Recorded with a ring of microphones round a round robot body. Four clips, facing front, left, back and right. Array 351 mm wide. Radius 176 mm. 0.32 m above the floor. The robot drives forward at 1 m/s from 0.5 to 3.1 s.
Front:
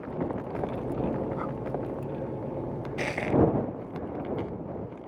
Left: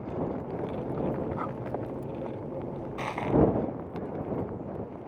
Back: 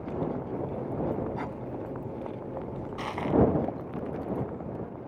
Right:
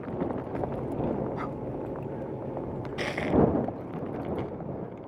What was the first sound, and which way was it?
Breathing, 140° right.